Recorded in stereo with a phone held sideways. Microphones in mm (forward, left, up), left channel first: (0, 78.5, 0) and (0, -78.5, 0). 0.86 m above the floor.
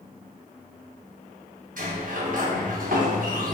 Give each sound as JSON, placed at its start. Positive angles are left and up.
{"t": 1.8, "sound": "a sliding door", "side_deg": -60, "distance_m": 0.7}